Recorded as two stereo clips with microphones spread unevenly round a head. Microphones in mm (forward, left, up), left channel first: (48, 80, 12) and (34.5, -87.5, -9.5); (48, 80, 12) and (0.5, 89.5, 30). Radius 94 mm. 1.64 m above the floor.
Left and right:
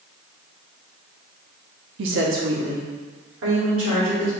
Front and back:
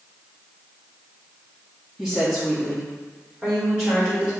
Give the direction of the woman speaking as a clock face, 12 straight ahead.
4 o'clock.